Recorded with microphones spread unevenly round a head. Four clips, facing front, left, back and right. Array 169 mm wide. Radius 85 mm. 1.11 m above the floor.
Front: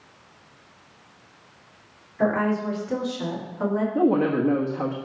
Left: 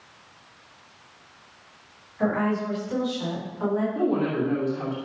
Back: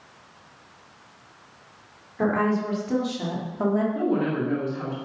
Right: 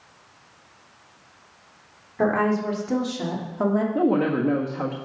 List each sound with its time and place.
2.2 s a woman speaking: 100° right, 4 m; by 3.9 s 110° right, 3 m
4.0 s a woman speaking: 45° right, 1.3 m